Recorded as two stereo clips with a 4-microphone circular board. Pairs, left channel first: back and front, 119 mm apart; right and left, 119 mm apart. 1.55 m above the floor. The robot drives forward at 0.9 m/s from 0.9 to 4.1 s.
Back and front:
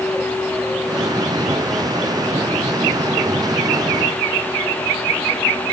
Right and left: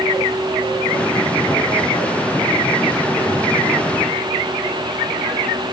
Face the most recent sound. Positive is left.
No sound to turn to.